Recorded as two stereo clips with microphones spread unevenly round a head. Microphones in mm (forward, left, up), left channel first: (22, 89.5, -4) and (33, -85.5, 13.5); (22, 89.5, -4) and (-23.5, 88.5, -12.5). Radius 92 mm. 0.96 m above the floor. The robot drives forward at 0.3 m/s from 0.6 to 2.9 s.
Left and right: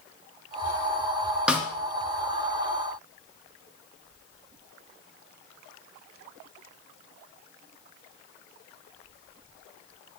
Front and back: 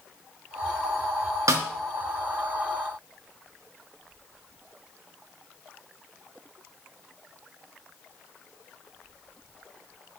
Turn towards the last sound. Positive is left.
turn(degrees=-175)